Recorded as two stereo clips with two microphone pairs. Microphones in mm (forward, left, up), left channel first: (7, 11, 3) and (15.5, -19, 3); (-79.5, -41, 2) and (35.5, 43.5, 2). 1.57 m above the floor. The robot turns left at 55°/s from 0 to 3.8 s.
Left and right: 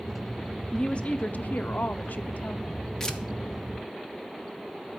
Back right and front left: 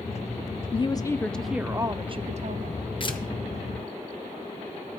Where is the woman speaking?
170° left, 0.6 m; by 2.9 s 50° left, 0.6 m.